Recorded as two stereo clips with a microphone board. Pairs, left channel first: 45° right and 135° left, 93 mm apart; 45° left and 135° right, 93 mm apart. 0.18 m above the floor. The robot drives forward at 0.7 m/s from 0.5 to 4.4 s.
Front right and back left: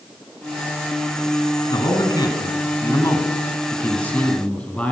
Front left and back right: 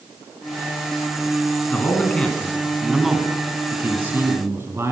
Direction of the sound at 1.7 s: 25° right.